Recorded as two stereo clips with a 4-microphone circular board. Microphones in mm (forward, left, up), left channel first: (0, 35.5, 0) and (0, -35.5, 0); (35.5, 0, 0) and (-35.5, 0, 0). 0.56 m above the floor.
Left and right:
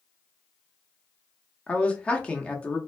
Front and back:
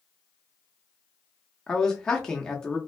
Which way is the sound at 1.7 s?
60° left.